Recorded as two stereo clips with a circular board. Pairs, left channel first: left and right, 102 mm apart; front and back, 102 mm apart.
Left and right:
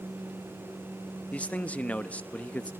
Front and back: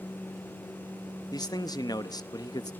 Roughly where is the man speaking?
Ahead.